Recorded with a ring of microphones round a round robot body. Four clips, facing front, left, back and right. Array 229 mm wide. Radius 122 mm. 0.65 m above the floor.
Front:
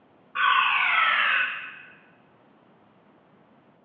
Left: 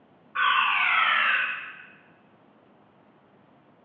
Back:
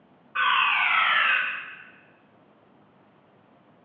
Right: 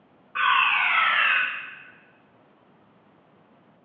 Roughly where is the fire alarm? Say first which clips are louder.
Right 1 dB, front 1 dB; behind right.